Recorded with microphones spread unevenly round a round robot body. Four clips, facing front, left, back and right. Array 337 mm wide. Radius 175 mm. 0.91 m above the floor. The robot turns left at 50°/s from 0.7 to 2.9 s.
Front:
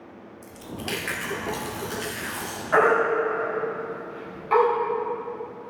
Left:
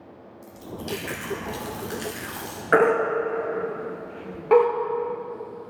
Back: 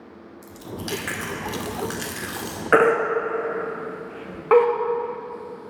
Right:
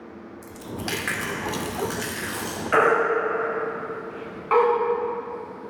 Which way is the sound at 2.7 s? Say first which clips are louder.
Even, back 2 dB; 150° left.